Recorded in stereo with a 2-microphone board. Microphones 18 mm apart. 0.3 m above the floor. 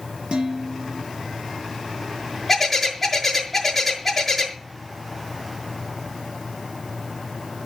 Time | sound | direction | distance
0.3 | dishes clattering | 70° right (ahead or behind) | 5 m
2.5 | a bird | 5° left (ahead or behind) | 5 m